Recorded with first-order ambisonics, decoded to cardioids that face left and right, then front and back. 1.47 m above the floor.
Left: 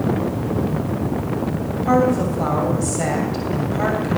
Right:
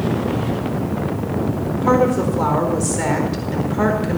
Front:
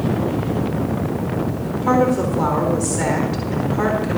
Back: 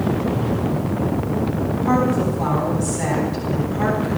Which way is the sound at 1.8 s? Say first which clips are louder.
Right 1 dB, front 3 dB; 55° right.